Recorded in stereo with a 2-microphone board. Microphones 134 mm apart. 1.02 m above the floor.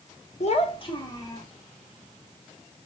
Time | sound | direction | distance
0.4 | a child speaking | 55° left (ahead or behind) | 1.1 m